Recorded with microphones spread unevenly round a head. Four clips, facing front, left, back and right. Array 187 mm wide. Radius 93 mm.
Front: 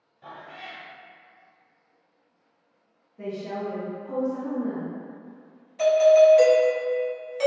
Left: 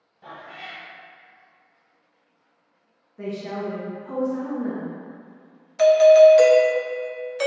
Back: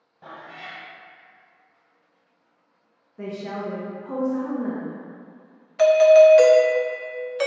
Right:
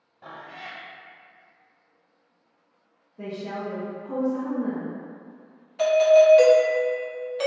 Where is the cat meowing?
140° right, 1.0 m.